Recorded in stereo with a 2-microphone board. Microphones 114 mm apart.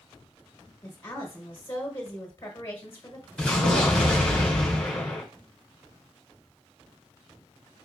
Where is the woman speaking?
20° left (ahead or behind), 1.2 m.